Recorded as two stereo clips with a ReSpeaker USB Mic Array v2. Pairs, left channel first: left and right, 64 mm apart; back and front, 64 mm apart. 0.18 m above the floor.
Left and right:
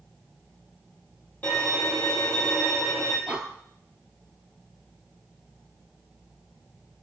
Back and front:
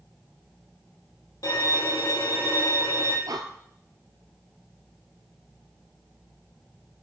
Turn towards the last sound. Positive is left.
turn(degrees=-20)